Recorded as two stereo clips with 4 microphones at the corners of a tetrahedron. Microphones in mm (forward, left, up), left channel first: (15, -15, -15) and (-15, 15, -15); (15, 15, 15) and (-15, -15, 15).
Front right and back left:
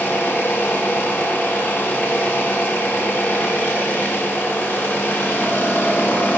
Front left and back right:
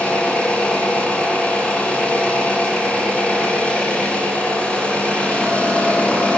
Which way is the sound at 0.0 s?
15° right.